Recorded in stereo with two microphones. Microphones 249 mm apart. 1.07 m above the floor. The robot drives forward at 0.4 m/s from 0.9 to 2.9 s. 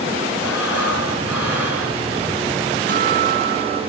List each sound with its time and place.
0.4 s breathing: 75° right (ahead or behind), 6 m; by 2.0 s 70° right (ahead or behind), 6 m
2.9 s a guitar: 40° right (ahead or behind), 2.5 m